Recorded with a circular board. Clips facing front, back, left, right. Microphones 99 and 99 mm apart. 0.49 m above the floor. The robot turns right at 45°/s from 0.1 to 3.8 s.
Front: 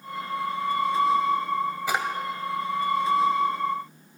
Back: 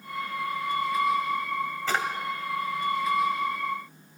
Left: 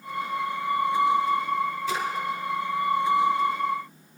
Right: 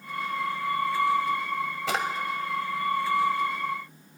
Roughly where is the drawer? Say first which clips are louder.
Back 2 dB, even; right.